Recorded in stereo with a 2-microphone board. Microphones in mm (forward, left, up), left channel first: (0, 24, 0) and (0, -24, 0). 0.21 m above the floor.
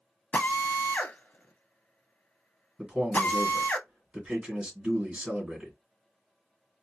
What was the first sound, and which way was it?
A drill, 30° left (ahead or behind).